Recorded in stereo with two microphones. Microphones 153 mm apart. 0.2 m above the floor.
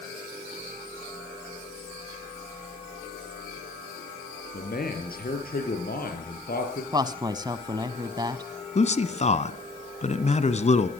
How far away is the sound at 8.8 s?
About 1.6 m.